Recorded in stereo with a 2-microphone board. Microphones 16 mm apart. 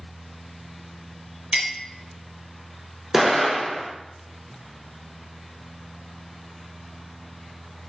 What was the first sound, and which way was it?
A clink, 75° right (ahead or behind).